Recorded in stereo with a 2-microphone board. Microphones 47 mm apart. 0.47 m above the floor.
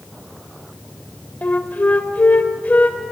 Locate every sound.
1.4 s a flute: 35° left (ahead or behind), 1.1 m